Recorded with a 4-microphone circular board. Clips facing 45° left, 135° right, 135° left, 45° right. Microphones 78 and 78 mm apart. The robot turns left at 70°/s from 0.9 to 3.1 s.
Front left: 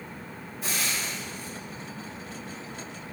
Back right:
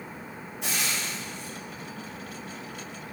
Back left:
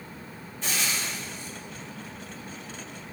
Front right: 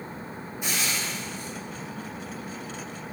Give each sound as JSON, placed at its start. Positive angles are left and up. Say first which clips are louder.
{"t": 0.6, "sound": "frying", "louder": "even, even", "azimuth_deg": -120, "distance_m": 1.5}